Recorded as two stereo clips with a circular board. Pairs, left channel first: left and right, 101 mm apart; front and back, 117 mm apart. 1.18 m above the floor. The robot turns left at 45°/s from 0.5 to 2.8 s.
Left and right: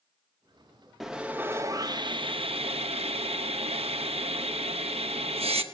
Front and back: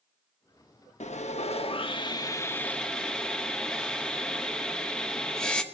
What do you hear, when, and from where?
1.0 s sawing: straight ahead, 0.8 m; by 5.6 s 80° right, 0.8 m